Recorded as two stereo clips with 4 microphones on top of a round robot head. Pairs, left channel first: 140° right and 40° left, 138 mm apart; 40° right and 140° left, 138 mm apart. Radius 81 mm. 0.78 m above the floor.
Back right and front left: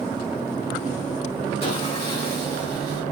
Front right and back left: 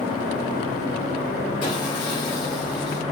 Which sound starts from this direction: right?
Sawing, at 1.6 s.